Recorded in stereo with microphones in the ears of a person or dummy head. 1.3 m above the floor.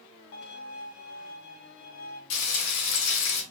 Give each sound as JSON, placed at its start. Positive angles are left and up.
{"t": 0.3, "sound": "a violin", "side_deg": 65, "distance_m": 1.7}
{"t": 2.3, "sound": "frying", "side_deg": 75, "distance_m": 3.0}